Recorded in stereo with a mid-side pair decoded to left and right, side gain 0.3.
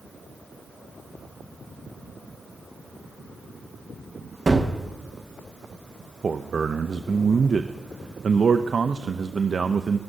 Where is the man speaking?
50° right, 0.6 m.